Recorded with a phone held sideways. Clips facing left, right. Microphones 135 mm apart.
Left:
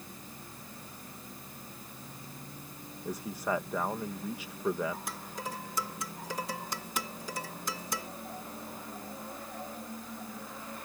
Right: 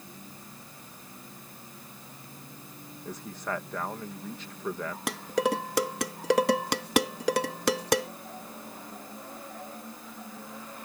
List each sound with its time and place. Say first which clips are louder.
0.0 s a fan: right 1 dB; 50° left (ahead or behind)
3.0 s a man speaking: left 2 dB; 10° left (ahead or behind)
5.1 s dishes clattering: right 13 dB; 80° right